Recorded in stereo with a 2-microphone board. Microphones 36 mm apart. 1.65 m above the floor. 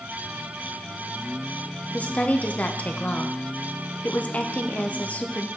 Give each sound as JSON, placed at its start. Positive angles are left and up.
{"t": 1.9, "sound": "a woman speaking", "side_deg": 45, "distance_m": 0.7}